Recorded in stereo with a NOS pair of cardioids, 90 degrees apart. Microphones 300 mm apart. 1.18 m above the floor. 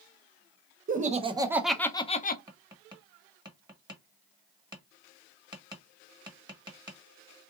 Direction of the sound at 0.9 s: 30° right.